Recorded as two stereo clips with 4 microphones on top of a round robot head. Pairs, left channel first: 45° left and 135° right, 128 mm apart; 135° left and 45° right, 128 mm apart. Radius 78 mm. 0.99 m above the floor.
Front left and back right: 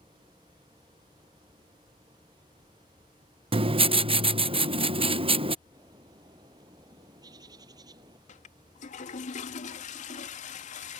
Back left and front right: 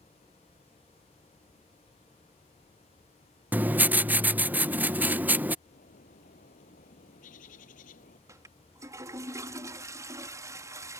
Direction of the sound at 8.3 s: 20° left.